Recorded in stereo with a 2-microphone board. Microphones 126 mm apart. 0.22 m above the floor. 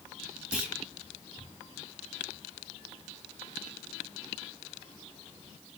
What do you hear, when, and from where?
0.5 s a clunk: 10° right (ahead or behind), 1.4 m